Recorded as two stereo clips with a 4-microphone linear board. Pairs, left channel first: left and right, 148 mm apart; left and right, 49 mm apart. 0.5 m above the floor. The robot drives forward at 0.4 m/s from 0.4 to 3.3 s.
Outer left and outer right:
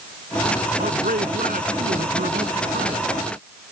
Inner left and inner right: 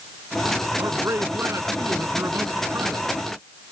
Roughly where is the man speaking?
Right.